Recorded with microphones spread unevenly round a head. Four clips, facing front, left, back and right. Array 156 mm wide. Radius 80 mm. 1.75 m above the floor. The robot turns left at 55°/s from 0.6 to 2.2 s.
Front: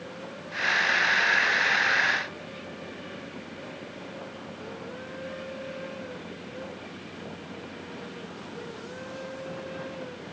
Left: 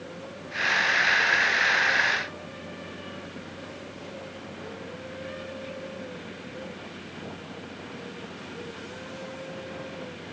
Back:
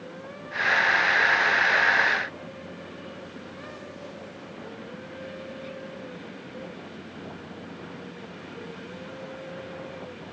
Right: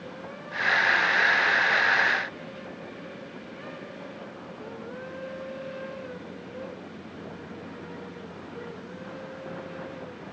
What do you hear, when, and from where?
Only background noise.